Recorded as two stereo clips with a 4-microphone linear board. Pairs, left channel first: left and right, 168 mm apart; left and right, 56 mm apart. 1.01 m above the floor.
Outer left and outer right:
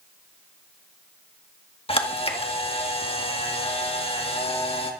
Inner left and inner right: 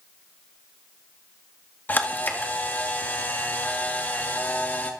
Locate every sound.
1.9 s a camera shutter: 35° left (ahead or behind), 1.7 m